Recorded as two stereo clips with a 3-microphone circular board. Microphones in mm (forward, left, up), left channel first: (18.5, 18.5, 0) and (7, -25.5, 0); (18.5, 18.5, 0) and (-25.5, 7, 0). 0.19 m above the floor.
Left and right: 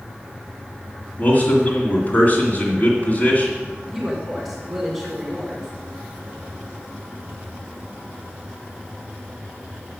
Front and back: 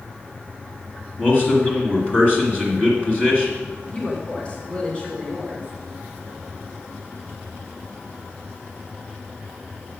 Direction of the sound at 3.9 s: 25° right.